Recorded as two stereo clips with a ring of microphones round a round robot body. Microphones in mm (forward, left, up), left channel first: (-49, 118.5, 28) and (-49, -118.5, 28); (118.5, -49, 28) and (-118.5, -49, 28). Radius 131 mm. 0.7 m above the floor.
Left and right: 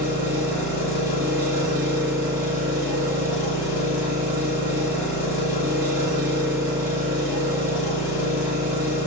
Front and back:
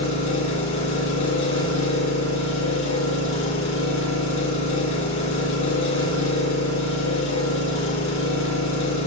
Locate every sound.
0.0 s an engine running: 5° right, 4 m